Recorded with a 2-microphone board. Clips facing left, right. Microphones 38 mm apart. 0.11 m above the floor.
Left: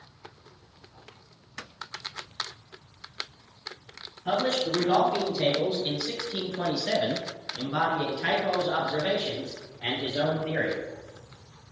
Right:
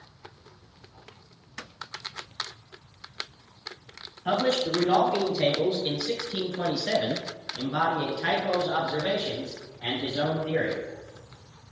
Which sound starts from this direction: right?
A man speaking, at 4.2 s.